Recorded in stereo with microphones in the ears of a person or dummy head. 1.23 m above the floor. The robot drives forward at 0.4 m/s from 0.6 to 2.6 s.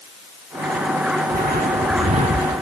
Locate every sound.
1.3 s footsteps: 40° right (ahead or behind); by 2.6 s 30° right (ahead or behind)